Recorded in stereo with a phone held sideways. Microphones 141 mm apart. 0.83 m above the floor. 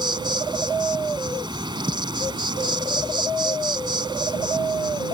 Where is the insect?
35° right (ahead or behind).